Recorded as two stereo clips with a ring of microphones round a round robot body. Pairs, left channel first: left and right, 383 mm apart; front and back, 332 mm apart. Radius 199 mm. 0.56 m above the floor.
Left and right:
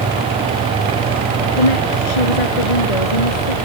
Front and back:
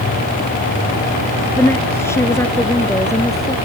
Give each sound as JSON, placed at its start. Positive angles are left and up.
{"t": 1.6, "sound": "a woman speaking", "azimuth_deg": 85}